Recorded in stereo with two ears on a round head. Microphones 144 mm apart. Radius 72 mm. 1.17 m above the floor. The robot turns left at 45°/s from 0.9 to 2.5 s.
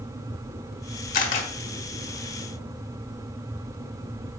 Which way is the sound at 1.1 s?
55° left (ahead or behind).